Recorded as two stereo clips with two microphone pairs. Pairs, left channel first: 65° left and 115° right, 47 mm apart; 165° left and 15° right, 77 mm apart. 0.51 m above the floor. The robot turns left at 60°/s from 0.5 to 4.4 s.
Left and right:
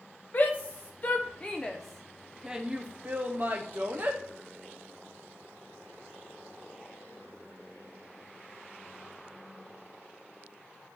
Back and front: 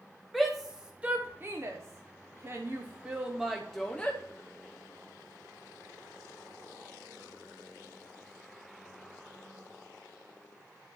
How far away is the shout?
About 0.9 m.